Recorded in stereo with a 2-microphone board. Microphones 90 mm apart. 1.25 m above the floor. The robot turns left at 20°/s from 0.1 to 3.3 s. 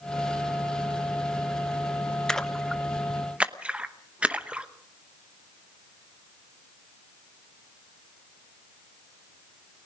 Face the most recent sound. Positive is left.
turn(degrees=-15)  # may be behind; listen again after turning